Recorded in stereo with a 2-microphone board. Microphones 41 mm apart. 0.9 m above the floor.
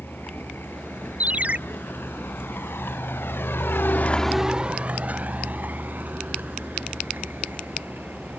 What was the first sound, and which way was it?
A vehicle, 65° left (ahead or behind).